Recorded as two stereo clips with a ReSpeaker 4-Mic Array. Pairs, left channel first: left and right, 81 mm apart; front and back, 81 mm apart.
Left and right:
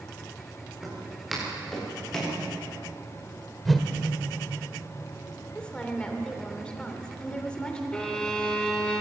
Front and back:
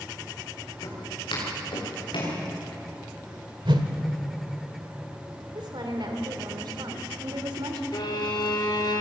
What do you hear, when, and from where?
0.8 s footsteps: 5° right, 9 m; by 2.4 s 10° left, 8 m
3.6 s a whoosh: straight behind, 1.8 m
5.5 s a woman speaking: 170° left, 3 m
7.9 s a violin: 10° left, 3 m